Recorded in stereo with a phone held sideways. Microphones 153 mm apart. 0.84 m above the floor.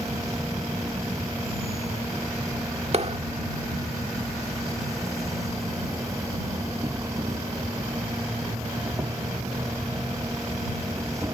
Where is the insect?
20° right (ahead or behind).